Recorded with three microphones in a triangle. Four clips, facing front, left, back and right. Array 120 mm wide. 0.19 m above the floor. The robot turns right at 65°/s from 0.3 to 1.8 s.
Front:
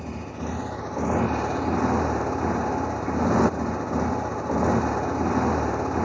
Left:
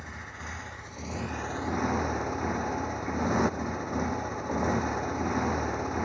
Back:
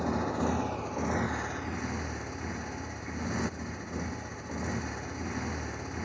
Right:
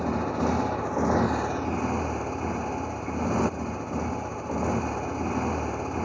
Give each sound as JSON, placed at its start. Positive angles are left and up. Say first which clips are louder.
{"t": 0.0, "sound": "a motorcycle", "louder": "right 17 dB, back 3 dB", "azimuth_deg": -105}